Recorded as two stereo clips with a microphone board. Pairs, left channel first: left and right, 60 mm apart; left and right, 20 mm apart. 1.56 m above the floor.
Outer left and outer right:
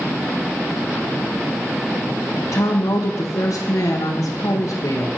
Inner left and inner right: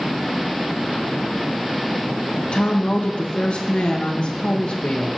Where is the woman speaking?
65° left (ahead or behind), 1.3 m.